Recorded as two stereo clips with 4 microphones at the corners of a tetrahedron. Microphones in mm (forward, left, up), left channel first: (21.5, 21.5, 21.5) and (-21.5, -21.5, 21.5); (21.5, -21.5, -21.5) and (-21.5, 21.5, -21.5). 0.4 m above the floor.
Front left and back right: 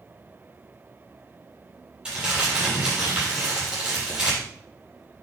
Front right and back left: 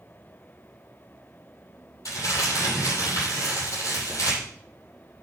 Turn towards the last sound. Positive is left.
turn(degrees=-65)